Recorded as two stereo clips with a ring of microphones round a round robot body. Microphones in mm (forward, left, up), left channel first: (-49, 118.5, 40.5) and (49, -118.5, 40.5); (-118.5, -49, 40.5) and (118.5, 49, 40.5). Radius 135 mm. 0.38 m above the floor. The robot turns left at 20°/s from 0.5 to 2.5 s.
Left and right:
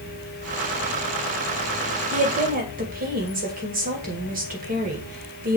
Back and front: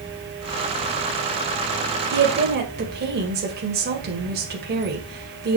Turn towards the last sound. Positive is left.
turn(degrees=-20)